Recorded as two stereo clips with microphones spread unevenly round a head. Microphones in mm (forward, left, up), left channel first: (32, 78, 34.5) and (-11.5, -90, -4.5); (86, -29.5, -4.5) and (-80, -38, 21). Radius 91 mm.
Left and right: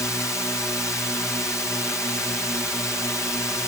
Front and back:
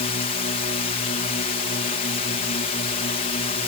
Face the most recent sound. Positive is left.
turn(degrees=-5)